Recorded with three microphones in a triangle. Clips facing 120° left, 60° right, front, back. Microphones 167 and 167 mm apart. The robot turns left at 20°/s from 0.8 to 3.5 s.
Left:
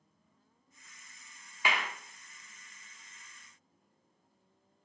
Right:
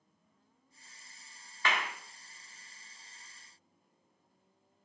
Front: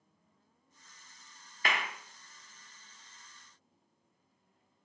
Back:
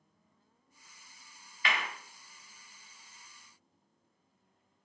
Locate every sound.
1.6 s a clap: 45° left, 0.5 m; by 1.8 s 40° left, 0.5 m